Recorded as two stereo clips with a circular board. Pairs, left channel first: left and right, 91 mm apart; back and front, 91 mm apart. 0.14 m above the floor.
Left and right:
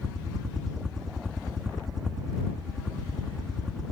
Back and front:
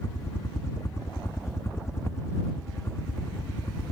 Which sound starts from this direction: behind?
A helicopter, at 0.0 s.